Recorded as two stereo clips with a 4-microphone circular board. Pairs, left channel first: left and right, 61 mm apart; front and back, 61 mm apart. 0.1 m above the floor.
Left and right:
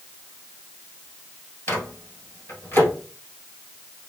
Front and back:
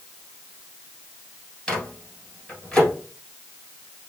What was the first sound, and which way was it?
A microwave, 75° left.